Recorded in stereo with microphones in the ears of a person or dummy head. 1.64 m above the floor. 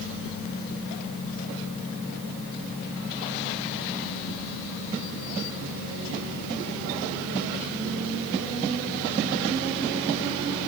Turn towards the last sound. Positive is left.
No sound to turn to.